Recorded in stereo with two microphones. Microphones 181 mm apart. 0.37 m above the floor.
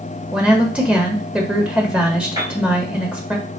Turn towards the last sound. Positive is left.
turn(degrees=-20)  # may be behind; listen again after turning